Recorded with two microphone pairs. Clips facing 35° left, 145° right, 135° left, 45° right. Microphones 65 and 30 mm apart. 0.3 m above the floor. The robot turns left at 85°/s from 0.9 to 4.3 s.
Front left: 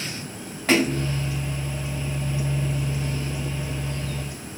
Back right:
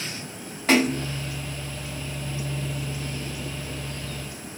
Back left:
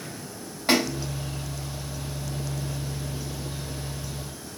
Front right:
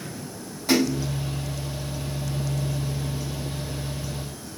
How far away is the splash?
About 1.9 m.